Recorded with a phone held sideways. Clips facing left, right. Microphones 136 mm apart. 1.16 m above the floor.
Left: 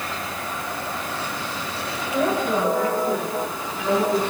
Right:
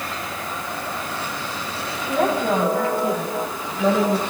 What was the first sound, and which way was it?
A woman speaking, 90° right.